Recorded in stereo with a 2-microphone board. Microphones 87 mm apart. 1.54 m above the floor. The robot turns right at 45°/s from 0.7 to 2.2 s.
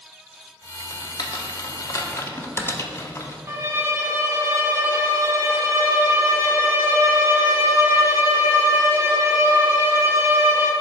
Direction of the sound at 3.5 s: 30° right (ahead or behind).